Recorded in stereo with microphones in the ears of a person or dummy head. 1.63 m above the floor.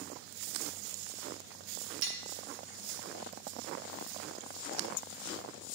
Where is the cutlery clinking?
60° right (ahead or behind), 1.3 m.